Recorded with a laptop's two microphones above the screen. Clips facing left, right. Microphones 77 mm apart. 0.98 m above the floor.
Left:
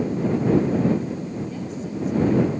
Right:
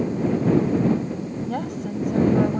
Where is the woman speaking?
65° right (ahead or behind); by 2.6 s 55° right (ahead or behind).